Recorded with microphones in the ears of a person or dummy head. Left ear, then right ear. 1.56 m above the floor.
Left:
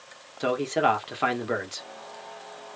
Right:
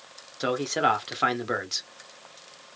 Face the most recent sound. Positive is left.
turn(degrees=0)  # may be behind; listen again after turning